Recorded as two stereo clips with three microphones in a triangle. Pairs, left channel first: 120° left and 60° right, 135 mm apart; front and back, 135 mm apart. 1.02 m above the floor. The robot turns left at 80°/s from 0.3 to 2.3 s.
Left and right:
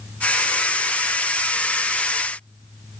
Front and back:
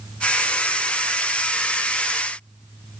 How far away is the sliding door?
No sliding door in this recording.